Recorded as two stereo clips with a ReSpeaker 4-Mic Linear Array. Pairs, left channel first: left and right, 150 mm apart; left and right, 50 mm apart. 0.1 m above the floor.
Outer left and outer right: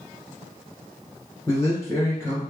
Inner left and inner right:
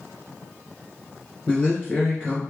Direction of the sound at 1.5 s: 20° left (ahead or behind).